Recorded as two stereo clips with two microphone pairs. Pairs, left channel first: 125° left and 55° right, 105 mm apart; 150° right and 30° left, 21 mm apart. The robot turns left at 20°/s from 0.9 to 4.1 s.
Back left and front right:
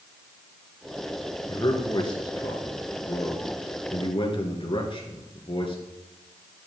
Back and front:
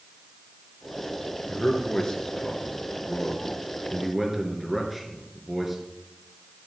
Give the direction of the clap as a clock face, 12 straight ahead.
I don't hear a clap.